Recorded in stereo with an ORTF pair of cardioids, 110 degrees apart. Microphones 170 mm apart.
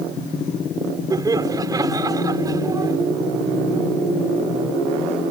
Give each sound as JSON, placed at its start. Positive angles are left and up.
{"t": 1.1, "sound": "laughter", "azimuth_deg": -20}